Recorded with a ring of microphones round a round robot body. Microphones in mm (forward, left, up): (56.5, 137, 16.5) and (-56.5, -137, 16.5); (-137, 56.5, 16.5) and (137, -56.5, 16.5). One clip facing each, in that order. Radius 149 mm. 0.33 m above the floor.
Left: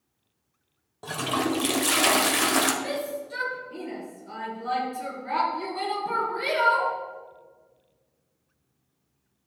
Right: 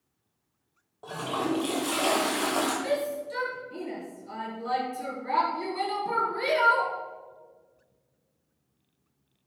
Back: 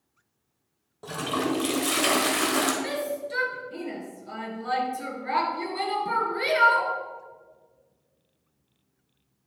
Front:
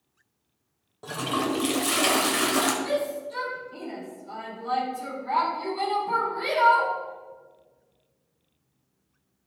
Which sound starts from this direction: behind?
A shout, at 2.8 s.